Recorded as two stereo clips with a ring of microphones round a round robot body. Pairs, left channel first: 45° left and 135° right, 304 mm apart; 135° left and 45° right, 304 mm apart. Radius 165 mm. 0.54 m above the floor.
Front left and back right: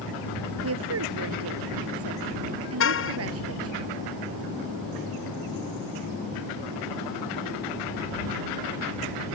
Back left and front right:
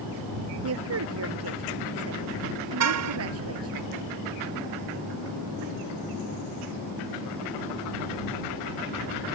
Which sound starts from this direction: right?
A woman speaking, at 0.6 s.